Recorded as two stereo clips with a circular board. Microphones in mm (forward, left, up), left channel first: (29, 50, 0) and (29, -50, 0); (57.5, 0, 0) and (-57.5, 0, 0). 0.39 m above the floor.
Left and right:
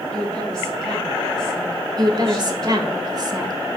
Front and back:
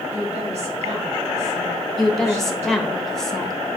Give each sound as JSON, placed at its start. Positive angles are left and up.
{"t": 0.1, "sound": "a woman speaking", "azimuth_deg": 175, "distance_m": 3.0}
{"t": 2.0, "sound": "a woman speaking", "azimuth_deg": -85, "distance_m": 1.3}